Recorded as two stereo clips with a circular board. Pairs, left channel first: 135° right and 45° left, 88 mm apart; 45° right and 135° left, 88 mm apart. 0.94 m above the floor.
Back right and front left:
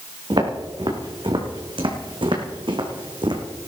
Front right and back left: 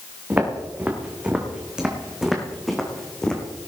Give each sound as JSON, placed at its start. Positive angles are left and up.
{"t": 0.3, "sound": "footsteps", "azimuth_deg": 65, "distance_m": 3.5}